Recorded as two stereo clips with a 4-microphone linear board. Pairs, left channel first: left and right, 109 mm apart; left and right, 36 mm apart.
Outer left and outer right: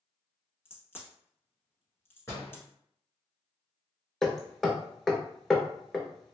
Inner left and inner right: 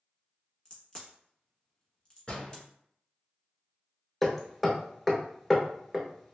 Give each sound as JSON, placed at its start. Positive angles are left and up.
{"t": 0.7, "sound": "a crack", "side_deg": 20, "distance_m": 1.1}
{"t": 2.3, "sound": "a door slam", "side_deg": 25, "distance_m": 1.6}
{"t": 4.2, "sound": "hammering", "side_deg": 5, "distance_m": 0.7}